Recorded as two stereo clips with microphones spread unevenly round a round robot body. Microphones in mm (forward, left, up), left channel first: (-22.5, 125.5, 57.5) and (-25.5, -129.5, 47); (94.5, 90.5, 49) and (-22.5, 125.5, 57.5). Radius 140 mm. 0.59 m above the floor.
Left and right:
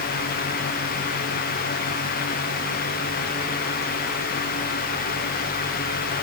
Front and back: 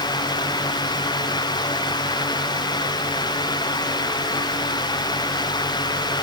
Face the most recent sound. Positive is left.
No sound to turn to.